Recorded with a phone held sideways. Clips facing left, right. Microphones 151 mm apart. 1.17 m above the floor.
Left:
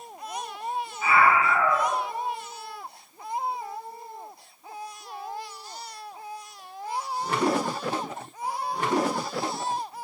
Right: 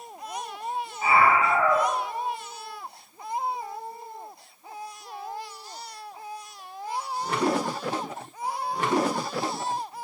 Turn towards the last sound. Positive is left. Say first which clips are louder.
# right 1 dB
turn(degrees=-35)  # may be behind; listen again after turning